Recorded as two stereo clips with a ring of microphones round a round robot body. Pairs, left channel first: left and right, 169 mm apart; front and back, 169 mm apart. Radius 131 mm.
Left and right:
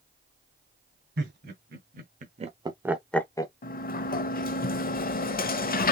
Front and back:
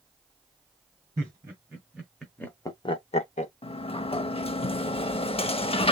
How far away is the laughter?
About 2 m.